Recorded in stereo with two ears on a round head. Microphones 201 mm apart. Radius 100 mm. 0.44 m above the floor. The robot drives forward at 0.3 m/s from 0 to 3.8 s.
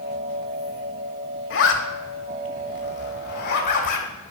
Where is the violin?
I don't hear a violin.